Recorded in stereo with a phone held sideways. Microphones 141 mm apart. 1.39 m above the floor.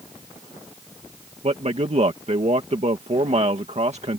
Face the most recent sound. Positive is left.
turn(degrees=-50)  # may be behind; listen again after turning